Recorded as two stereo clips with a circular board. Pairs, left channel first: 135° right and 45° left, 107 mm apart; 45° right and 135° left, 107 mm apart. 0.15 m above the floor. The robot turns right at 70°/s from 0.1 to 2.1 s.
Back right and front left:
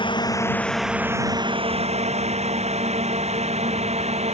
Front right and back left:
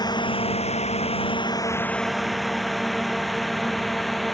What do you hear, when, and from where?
0.0 s a drone: 95° right; by 4.3 s 45° left